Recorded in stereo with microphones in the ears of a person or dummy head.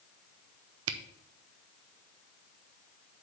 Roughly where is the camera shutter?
Right.